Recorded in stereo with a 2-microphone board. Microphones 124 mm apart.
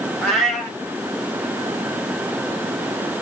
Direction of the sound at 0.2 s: Centre (ahead or behind).